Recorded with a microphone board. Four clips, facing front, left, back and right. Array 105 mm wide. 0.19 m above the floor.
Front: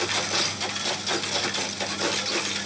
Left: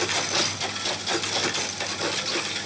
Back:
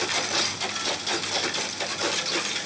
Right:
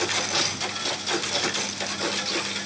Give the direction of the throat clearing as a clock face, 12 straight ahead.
No throat clearing in this recording.